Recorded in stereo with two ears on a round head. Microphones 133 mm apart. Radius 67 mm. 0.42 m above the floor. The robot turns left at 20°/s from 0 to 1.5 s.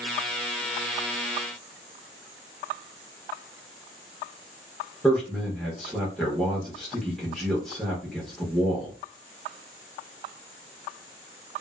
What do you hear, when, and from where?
5.0 s a man speaking: 5° left (ahead or behind), 0.9 m